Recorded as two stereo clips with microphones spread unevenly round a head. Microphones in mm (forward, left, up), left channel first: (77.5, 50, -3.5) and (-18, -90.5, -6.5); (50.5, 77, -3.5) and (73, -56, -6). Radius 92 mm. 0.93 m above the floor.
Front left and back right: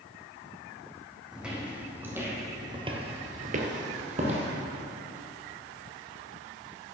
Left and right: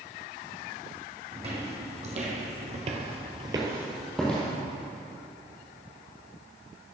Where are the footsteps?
40° right, 3 m; by 4.5 s straight behind, 2 m.